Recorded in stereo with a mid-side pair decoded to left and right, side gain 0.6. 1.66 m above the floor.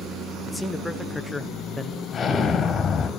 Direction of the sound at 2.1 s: 30° left.